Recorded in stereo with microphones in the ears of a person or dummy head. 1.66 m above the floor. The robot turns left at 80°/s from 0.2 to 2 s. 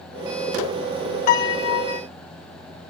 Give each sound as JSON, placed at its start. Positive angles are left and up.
{"t": 1.3, "sound": "a piano", "azimuth_deg": 130, "distance_m": 0.7}